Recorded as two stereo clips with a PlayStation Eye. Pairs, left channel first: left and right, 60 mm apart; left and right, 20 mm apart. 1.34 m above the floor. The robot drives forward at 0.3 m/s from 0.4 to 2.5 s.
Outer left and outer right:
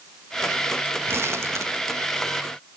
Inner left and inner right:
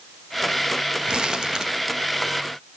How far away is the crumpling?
About 1.4 m.